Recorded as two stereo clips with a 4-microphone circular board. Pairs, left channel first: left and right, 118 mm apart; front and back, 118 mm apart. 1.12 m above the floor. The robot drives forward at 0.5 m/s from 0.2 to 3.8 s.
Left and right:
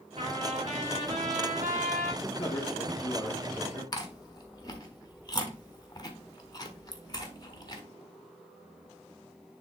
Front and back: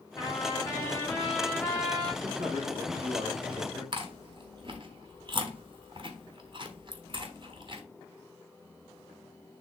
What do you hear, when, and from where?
0.2 s a trumpet: 60° right, 2 m; by 2.1 s 85° right, 1.8 m
2.2 s a man speaking: 135° left, 1.5 m; by 3.8 s 150° left, 2 m
3.9 s chewing: 140° left, 1.2 m